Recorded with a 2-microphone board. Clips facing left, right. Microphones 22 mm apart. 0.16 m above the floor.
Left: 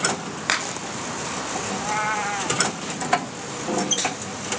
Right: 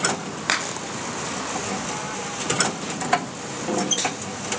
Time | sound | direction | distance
1.7 | a cat meowing | 45° left (ahead or behind) | ?